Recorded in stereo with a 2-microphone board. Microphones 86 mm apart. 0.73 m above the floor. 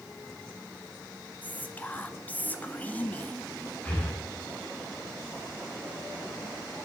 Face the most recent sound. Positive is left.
turn(degrees=20)  # may be behind; listen again after turning